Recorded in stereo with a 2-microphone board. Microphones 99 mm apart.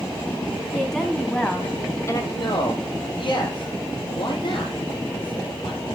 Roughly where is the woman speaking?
Centre.